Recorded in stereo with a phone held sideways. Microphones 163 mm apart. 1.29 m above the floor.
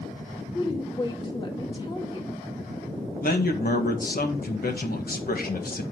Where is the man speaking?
65° left (ahead or behind), 1.5 m.